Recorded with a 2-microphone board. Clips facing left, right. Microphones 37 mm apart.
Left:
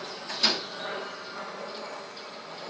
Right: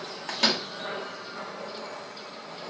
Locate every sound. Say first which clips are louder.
0.3 s a microwave: right 2 dB; 75° right (ahead or behind), 1.5 m